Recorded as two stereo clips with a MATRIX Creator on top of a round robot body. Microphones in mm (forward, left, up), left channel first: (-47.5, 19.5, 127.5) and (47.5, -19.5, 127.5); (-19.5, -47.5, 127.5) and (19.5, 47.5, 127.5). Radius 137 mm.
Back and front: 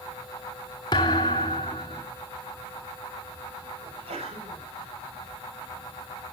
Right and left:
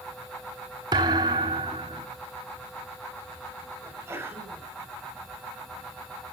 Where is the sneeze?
Straight ahead, 6.5 m.